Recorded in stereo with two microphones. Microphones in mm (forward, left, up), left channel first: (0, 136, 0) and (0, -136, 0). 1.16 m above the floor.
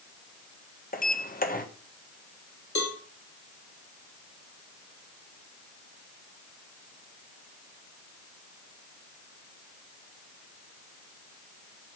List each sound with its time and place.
0.9 s a sliding door: 30° left (ahead or behind), 1.3 m
2.8 s a cowbell: 85° left, 3 m